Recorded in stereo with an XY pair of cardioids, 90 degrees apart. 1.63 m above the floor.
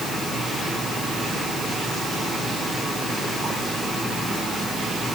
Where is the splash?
I don't hear a splash.